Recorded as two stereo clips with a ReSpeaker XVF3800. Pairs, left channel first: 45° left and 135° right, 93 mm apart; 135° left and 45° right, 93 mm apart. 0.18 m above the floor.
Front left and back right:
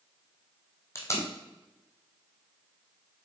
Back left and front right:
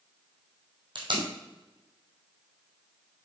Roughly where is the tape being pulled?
Ahead.